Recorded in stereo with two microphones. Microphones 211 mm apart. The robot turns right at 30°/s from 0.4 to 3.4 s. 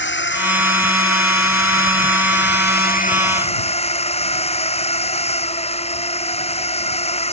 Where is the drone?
60° left; by 7.3 s 150° left.